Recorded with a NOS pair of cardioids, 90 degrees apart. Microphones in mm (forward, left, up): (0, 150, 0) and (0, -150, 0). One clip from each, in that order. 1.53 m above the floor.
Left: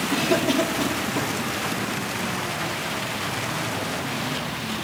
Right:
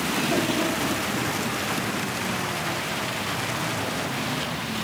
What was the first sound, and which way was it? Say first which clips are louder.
A cough: left 4 dB; 55° left.